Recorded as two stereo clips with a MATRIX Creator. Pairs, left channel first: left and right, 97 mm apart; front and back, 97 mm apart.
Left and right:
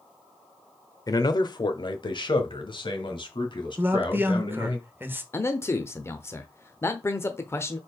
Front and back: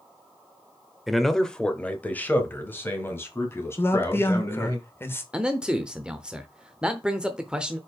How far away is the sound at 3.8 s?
About 1.1 m.